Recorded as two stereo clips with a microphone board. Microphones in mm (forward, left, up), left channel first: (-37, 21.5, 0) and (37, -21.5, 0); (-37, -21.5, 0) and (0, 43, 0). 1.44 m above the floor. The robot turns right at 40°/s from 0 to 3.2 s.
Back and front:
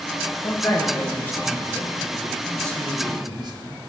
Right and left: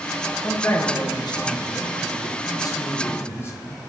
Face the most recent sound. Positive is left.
turn(degrees=-65)